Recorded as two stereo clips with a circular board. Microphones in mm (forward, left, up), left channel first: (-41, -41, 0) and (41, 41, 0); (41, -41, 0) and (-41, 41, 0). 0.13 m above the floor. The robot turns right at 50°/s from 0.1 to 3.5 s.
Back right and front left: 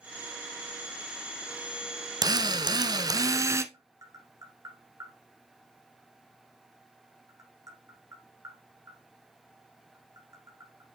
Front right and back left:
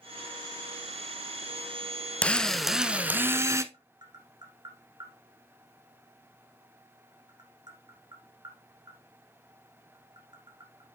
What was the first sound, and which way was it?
A drill, 25° left.